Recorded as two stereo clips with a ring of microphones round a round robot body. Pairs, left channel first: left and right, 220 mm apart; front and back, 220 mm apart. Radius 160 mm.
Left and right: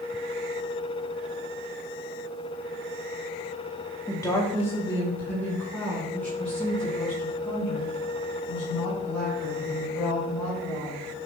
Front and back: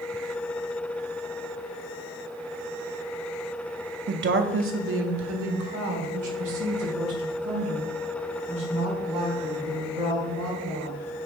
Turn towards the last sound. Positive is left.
turn(degrees=180)